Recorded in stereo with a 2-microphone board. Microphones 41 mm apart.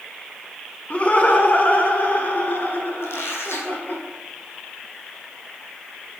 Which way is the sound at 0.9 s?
30° left (ahead or behind).